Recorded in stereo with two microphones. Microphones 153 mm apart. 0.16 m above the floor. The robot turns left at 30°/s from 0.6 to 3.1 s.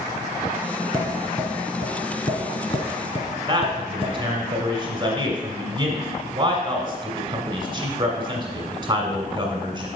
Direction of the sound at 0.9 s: Centre (ahead or behind).